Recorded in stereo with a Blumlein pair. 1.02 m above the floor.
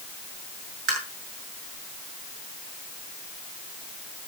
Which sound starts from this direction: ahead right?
Tapping, at 0.9 s.